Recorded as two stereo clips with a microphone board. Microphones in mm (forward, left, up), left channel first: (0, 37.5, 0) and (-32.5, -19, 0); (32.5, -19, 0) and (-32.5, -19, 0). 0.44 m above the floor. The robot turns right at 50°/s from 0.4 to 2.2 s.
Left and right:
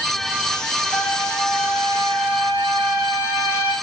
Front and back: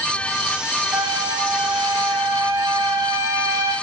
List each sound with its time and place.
0.9 s a trumpet: 115° left, 3.5 m; by 3.7 s straight behind, 3.5 m